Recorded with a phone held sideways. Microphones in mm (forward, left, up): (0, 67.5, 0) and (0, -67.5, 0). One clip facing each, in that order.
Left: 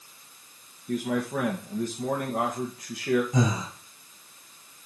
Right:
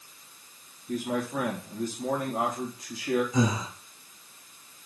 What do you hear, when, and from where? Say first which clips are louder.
0.9 s a man speaking: left 2 dB; 75° left (ahead or behind), 1.8 m
3.3 s breathing: even; 50° left (ahead or behind), 4 m